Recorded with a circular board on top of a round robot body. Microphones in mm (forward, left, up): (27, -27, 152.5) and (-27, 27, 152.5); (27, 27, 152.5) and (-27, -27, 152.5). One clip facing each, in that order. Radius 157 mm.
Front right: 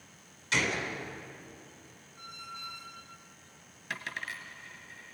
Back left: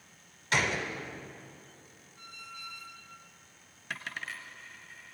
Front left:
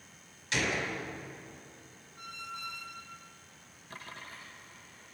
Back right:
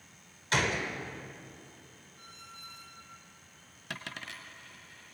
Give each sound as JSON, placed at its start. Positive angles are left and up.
{"t": 0.5, "sound": "a gunshot", "azimuth_deg": 180, "distance_m": 2.5}
{"t": 2.2, "sound": "a squeak", "azimuth_deg": 20, "distance_m": 0.9}
{"t": 3.9, "sound": "a dropped coin", "azimuth_deg": -140, "distance_m": 1.1}